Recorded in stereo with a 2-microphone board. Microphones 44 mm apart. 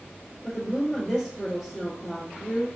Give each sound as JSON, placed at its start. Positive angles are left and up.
{"t": 0.4, "sound": "a woman speaking", "side_deg": -10, "distance_m": 2.5}